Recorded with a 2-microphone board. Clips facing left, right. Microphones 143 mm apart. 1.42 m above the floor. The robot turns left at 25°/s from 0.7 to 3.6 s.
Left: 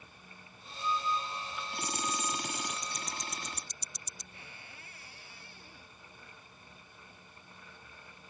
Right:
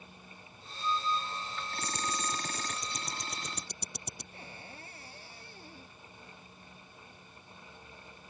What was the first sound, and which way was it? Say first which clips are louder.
Ticking: left 1 dB; 20° right (ahead or behind).